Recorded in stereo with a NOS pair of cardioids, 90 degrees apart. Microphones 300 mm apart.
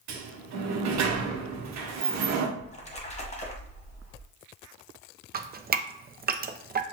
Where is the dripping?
30° right, 0.6 m.